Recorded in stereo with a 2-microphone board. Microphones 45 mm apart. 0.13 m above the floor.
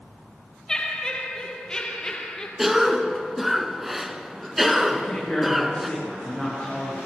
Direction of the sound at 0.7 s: 15° left (ahead or behind).